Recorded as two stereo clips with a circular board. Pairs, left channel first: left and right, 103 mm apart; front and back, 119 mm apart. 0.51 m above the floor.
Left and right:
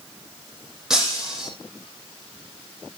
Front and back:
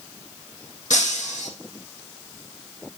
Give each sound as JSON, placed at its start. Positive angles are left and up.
{"t": 0.9, "sound": "breaking glass", "azimuth_deg": -5, "distance_m": 6.0}